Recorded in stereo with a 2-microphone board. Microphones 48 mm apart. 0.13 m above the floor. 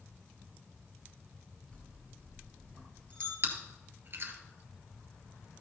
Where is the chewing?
45° right (ahead or behind), 2.0 m.